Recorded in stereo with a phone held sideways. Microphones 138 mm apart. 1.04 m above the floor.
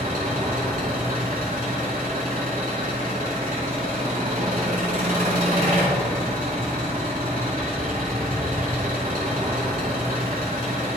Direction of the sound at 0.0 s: 75° right (ahead or behind).